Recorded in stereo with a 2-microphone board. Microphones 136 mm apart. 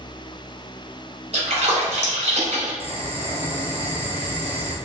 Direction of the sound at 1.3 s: 55° right (ahead or behind).